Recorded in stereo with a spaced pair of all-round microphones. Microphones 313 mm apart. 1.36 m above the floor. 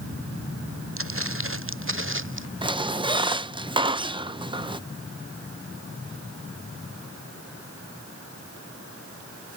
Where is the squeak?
15° right (ahead or behind).